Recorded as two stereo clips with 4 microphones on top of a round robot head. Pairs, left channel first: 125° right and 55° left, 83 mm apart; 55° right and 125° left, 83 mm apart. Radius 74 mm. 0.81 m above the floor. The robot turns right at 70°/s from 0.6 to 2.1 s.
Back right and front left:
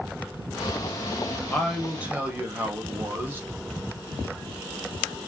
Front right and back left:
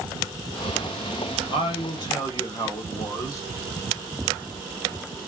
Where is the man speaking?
55° right, 1.5 m; by 3.4 s 10° right, 1.5 m.